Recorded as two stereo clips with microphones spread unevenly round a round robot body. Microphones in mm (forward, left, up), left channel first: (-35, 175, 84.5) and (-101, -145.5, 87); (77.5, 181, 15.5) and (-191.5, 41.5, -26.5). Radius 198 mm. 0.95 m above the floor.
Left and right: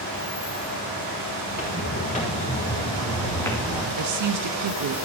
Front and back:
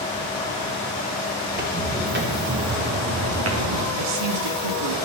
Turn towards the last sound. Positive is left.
turn(degrees=-140)